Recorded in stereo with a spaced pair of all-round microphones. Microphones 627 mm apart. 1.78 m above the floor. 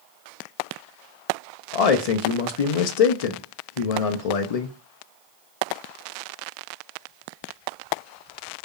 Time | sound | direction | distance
1.7 | a man speaking | 70° left (ahead or behind) | 0.6 m